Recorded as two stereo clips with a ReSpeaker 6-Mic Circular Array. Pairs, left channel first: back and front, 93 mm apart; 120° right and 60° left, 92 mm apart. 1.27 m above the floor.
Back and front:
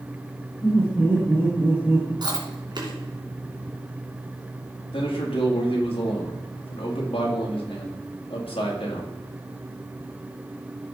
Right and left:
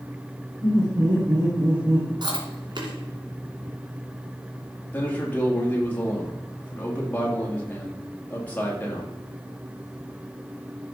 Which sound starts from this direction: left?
Laughter, at 0.6 s.